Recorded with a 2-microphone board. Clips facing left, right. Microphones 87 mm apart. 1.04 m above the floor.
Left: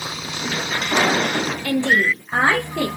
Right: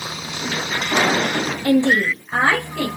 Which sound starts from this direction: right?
A woman speaking, at 1.6 s.